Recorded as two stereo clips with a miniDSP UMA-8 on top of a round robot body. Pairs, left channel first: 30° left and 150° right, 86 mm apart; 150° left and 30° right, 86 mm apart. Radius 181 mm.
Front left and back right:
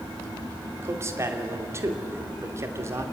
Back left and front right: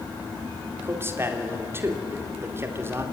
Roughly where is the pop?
No pop in this recording.